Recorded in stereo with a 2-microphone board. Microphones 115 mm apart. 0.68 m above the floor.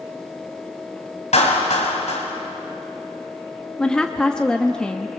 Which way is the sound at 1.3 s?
70° left (ahead or behind).